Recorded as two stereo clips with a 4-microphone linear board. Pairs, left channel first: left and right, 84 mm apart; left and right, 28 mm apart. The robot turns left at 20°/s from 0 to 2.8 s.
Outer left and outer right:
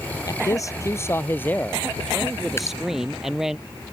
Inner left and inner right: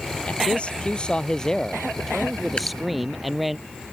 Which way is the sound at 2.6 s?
30° left (ahead or behind).